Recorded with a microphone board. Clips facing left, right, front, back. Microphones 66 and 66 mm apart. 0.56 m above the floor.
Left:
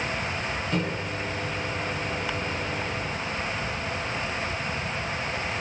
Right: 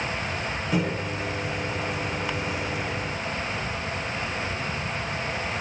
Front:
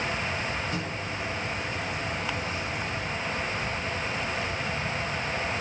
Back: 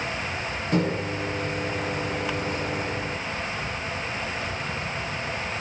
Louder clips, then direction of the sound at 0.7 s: Right 5 dB, back 7 dB; 170° right.